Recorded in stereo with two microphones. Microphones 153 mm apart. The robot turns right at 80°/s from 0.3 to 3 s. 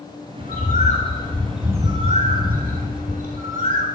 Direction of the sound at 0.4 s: 90° left.